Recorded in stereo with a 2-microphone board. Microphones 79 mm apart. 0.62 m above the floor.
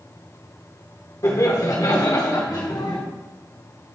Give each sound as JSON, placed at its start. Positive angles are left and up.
{"t": 1.2, "sound": "laughter", "side_deg": 45, "distance_m": 1.6}